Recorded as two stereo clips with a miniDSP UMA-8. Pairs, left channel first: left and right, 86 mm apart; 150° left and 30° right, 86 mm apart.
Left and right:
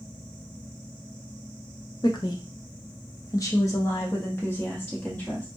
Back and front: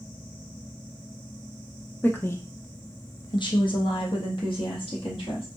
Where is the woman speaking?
85° left, 0.7 m; by 5.5 s 160° left, 1.8 m.